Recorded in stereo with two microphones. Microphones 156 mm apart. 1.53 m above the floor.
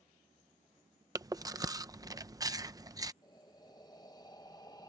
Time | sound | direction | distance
1.1 | chewing | 20° right (ahead or behind) | ?
3.2 | breathing | 25° left (ahead or behind) | ?